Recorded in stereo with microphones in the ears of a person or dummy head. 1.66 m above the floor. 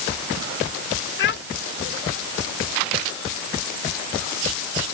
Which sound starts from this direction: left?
A child speaking, at 1.2 s.